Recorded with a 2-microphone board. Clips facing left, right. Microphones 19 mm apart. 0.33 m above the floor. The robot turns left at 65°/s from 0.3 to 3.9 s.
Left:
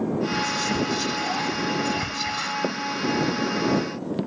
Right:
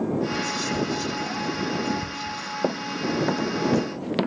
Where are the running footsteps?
20° right (ahead or behind); by 4.3 s 60° right (ahead or behind).